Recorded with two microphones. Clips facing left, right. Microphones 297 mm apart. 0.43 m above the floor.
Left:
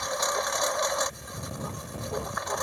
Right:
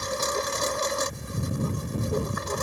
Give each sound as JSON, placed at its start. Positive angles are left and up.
{"t": 0.0, "sound": "a lawn mower", "side_deg": -35}